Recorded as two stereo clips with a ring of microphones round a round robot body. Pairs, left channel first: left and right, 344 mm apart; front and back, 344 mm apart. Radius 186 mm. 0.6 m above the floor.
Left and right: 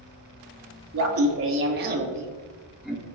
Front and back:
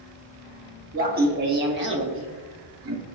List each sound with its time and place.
0.9 s laughter: 120° right, 1.5 m; by 3.1 s 175° left, 1.2 m